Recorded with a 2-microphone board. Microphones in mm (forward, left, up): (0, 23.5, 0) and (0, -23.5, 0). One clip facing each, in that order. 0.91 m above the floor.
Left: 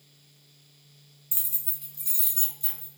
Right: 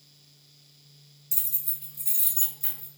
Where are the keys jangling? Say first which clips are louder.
Even; 30° left (ahead or behind), 0.5 m; by 2.9 s 35° right (ahead or behind), 1.2 m.